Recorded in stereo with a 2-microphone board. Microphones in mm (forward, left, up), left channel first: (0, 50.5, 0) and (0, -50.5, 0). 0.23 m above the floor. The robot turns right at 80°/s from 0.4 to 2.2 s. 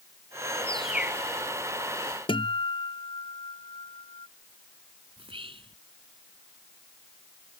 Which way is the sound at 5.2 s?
60° right (ahead or behind).